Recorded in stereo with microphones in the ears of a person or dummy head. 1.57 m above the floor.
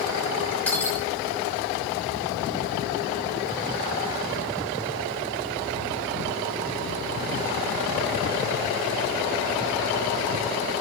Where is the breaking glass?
10° left (ahead or behind), 5.5 m.